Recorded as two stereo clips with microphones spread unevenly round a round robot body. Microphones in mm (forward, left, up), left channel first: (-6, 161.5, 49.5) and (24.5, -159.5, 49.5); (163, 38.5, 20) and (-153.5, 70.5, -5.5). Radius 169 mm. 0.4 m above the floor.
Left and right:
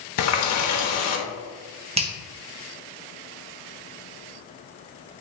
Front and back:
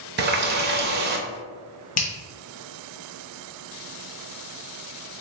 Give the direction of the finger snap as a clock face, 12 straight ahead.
1 o'clock.